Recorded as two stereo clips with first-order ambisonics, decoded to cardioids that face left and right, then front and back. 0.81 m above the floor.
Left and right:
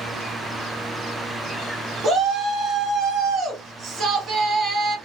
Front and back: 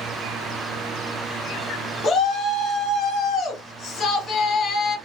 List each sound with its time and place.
2.0 s a shout: 45° right, 1.3 m